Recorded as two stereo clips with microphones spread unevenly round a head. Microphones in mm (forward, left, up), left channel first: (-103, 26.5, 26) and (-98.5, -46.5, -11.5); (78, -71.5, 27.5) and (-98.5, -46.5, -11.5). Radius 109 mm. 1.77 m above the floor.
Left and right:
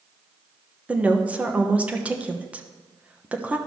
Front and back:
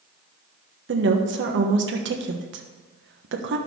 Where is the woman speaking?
Straight behind, 1.2 m.